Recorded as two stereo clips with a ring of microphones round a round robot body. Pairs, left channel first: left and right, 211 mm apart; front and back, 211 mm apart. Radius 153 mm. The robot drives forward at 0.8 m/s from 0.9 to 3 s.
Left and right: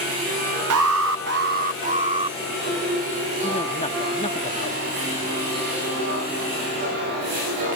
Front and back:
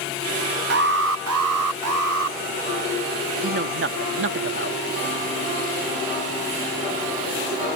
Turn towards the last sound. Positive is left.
turn(degrees=160)